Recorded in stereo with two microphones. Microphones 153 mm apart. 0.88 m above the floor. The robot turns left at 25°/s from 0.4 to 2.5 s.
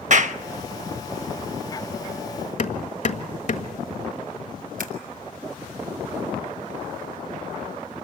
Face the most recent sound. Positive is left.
turn(degrees=-65)  # may be behind; listen again after turning